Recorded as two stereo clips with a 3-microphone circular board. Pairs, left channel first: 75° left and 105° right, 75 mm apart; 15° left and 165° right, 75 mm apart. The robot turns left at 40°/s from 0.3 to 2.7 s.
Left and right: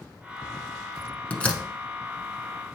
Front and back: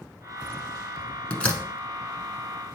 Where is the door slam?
55° left, 0.7 m; by 1.6 s 40° left, 0.7 m.